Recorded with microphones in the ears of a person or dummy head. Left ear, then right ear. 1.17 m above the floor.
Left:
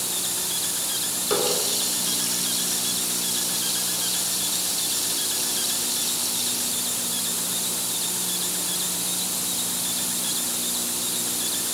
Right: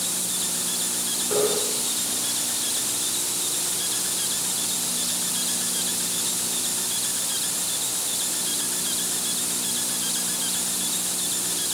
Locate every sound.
1.3 s a running tap: 65° left (ahead or behind), 9 m